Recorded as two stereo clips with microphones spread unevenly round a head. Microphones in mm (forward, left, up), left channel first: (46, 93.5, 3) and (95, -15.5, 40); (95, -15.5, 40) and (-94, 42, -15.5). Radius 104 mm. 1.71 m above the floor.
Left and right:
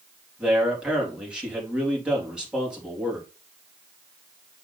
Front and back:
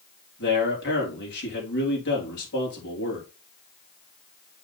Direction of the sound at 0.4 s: 15° left.